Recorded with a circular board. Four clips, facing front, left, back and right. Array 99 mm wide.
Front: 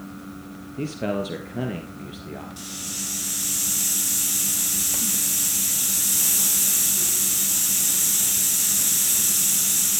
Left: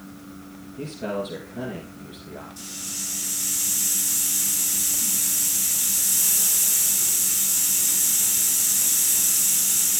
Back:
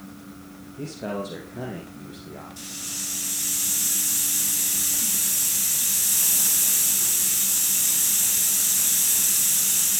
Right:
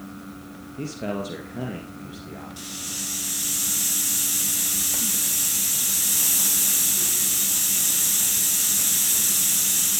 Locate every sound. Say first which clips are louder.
0.8 s a man speaking: even, front 4 dB; 15° right, 3 m
2.6 s a hiss: right 3 dB, front 3 dB; 60° right, 7 m